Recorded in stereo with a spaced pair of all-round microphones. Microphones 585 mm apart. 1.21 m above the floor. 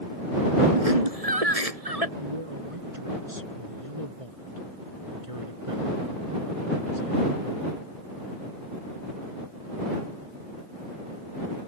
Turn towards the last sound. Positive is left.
turn(degrees=-65)  # may be behind; listen again after turning